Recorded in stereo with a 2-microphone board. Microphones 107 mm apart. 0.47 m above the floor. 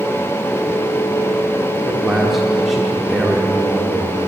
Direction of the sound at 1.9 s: Centre (ahead or behind).